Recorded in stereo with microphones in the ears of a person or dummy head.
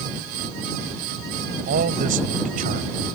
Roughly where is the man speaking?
Right.